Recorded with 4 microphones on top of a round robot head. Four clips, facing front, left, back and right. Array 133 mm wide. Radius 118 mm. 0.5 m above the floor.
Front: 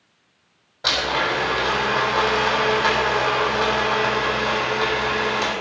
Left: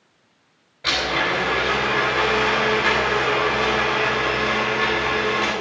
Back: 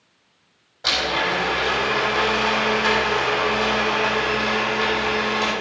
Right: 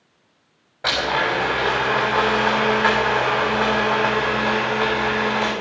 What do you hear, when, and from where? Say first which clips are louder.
0.8 s a blender: right 2 dB, front 1 dB; 75° right, 3.5 m